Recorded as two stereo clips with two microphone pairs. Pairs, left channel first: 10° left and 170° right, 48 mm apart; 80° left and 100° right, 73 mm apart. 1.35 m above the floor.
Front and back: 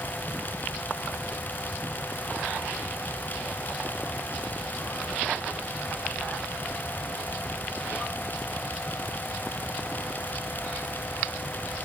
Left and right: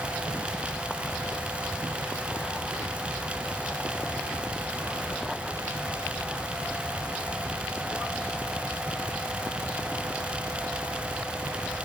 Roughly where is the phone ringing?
I don't hear a phone ringing.